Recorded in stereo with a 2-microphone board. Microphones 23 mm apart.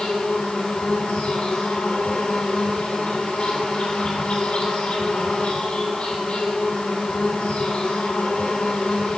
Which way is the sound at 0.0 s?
55° left (ahead or behind).